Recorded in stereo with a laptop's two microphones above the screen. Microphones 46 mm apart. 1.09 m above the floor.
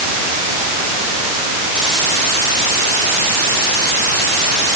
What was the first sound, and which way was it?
Only background noise.